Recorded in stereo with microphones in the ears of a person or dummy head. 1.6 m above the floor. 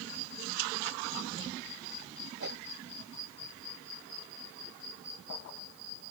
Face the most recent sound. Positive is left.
turn(degrees=-60)  # may be behind; listen again after turning